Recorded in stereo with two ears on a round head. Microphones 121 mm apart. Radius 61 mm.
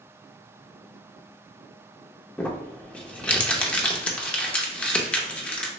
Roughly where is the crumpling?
Centre.